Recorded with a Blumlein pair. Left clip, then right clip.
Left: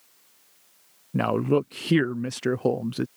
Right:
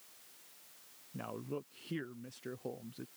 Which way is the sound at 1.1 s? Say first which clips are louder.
Left 20 dB; 40° left.